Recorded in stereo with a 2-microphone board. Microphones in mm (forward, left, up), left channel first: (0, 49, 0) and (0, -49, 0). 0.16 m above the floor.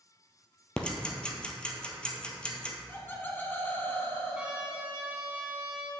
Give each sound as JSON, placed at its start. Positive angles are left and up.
{"t": 0.8, "sound": "ticking", "side_deg": 10, "distance_m": 1.0}
{"t": 2.9, "sound": "laughter", "side_deg": 20, "distance_m": 1.0}
{"t": 4.3, "sound": "a trumpet", "side_deg": -10, "distance_m": 1.3}